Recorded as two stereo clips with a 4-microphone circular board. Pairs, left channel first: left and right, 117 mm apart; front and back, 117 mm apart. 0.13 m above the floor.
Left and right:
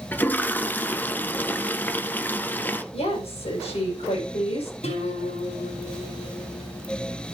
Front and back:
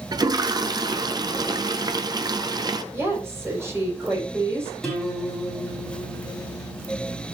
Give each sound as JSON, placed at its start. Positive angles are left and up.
{"t": 0.1, "sound": "a toilet flushing", "azimuth_deg": 155, "distance_m": 0.7}
{"t": 2.9, "sound": "a woman speaking", "azimuth_deg": 115, "distance_m": 5.5}
{"t": 4.8, "sound": "a guitar", "azimuth_deg": 90, "distance_m": 5.0}